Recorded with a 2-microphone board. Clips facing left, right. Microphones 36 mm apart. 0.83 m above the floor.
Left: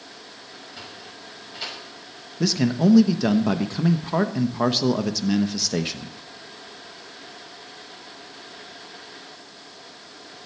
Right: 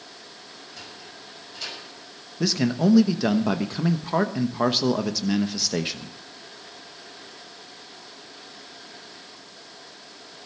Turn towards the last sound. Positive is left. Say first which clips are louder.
# left 2 dB
turn(degrees=-5)  # may be behind; listen again after turning